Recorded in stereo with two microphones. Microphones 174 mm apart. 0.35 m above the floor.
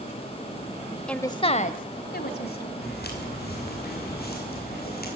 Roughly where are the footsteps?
Left.